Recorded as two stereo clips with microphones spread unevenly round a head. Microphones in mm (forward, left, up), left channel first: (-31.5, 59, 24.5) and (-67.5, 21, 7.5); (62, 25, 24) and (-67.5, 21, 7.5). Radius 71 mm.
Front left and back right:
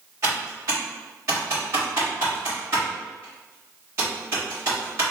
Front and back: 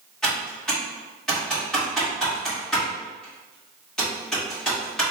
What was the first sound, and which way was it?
Typing on a keyboard, 85° right.